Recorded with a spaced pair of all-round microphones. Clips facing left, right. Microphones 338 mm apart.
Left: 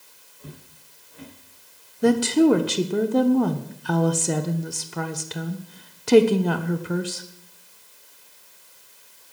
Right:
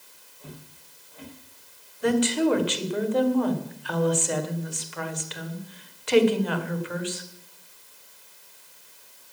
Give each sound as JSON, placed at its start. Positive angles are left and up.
{"t": 0.4, "sound": "footsteps", "side_deg": 20, "distance_m": 8.0}
{"t": 2.0, "sound": "a woman speaking", "side_deg": 55, "distance_m": 1.3}